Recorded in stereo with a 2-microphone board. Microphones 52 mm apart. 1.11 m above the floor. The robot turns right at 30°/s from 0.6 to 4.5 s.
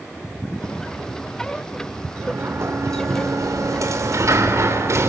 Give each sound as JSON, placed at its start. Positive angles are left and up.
{"t": 2.1, "sound": "a sliding door", "azimuth_deg": -135, "distance_m": 2.5}